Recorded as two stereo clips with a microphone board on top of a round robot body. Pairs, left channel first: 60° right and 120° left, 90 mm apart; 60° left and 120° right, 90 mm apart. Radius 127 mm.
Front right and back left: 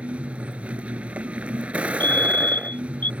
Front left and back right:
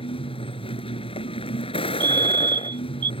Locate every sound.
0.0 s a vehicle: 40° left
2.0 s a fire alarm: 130° right